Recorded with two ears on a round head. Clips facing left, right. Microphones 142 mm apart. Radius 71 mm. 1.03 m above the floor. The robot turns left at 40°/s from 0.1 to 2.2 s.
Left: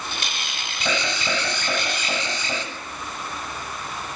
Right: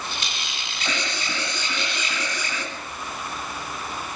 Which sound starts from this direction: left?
An alarm, at 0.8 s.